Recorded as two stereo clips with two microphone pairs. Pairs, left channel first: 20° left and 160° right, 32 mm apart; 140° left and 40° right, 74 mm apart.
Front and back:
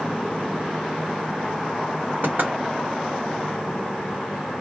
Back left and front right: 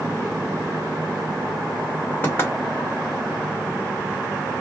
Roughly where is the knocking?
Behind.